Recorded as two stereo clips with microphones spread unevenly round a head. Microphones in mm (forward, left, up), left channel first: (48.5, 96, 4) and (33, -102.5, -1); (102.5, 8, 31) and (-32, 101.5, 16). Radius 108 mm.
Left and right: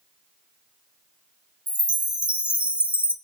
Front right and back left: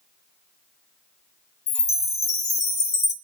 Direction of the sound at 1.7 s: 15° right.